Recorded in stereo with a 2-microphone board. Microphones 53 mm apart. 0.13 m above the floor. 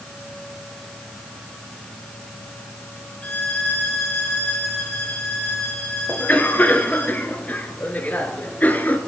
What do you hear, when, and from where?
3.2 s a violin: 25° left (ahead or behind), 2.0 m
6.1 s a cough: 30° left (ahead or behind), 1.9 m